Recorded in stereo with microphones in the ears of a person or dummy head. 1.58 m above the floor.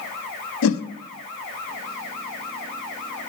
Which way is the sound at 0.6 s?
80° left.